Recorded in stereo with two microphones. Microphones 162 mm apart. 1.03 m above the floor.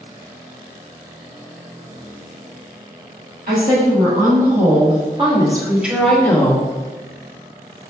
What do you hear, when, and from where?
3.5 s a woman speaking: 60° right (ahead or behind), 1.4 m; by 6.7 s 25° left (ahead or behind), 0.8 m